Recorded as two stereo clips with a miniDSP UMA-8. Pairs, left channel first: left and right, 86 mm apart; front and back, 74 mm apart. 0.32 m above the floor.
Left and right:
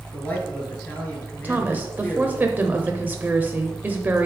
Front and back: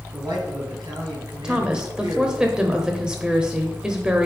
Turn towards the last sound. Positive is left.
turn(degrees=-115)